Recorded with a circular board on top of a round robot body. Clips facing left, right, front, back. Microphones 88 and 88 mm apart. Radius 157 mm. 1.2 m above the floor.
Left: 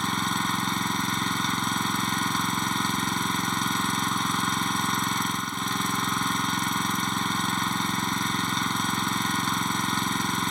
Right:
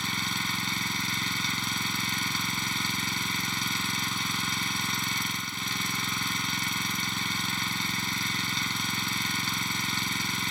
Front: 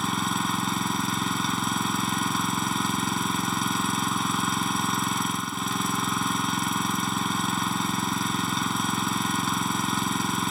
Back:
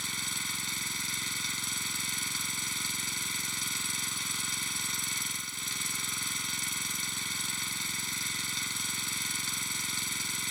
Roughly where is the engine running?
Ahead left.